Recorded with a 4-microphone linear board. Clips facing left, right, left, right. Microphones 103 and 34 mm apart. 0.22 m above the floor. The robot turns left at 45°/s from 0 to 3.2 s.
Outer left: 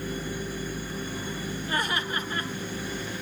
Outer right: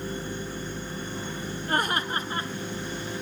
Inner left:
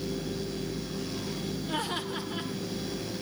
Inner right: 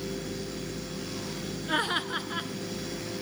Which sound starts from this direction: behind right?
Laughter, at 1.7 s.